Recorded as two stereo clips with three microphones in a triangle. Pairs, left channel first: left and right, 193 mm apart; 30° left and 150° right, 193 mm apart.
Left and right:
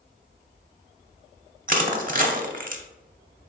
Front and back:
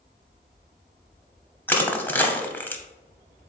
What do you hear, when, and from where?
1.7 s crushing: 50° right, 0.7 m